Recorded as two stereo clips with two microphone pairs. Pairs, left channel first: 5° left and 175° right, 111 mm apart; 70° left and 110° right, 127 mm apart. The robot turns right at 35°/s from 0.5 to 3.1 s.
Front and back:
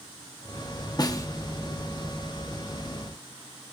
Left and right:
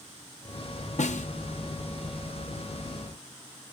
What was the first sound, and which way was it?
A snare drum, 55° left.